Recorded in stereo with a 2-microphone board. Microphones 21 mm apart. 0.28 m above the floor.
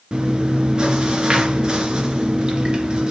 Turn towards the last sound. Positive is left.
turn(degrees=-40)  # may be behind; listen again after turning